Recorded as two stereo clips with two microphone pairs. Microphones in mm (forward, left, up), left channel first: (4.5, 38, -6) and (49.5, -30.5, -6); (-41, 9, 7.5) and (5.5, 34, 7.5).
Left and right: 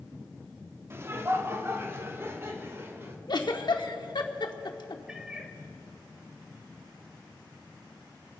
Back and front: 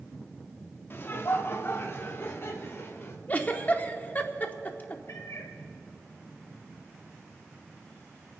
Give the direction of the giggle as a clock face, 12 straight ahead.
7 o'clock.